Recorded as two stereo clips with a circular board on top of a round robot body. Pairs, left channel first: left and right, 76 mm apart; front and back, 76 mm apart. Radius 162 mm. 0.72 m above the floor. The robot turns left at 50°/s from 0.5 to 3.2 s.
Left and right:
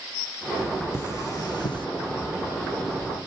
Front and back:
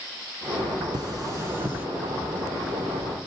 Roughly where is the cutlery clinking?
Behind left.